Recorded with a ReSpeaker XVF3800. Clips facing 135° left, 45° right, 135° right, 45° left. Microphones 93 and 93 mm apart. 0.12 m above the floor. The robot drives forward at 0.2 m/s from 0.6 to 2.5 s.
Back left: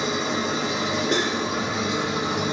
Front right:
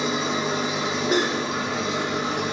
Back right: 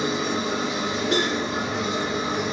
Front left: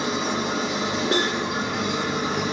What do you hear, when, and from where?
0.0 s an engine running: 45° left, 1.3 m; by 2.5 s 55° left, 1.1 m
1.1 s cutlery clinking: 35° left, 0.8 m; by 1.4 s 40° left, 0.8 m